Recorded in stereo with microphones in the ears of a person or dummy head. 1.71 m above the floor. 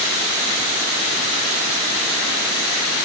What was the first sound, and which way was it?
Only background noise.